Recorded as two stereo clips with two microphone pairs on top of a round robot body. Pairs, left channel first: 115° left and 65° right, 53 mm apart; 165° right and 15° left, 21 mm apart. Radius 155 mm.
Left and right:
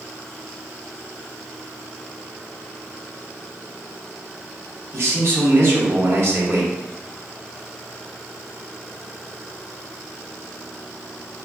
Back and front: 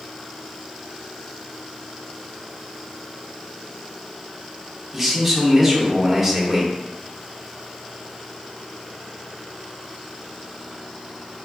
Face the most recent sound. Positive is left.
turn(degrees=-60)